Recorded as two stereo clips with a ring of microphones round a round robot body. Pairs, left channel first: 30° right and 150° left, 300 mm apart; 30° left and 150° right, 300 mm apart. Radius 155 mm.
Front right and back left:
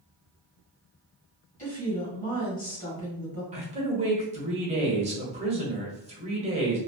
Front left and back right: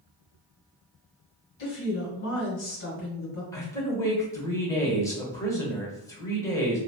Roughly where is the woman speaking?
Ahead left.